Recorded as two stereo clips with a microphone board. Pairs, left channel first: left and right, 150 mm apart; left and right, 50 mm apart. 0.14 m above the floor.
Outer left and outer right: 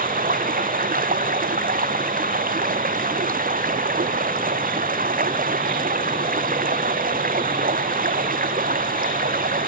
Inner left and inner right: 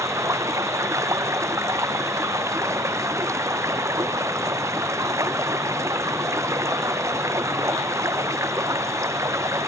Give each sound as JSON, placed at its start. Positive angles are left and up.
{"t": 0.0, "sound": "running water", "side_deg": -75}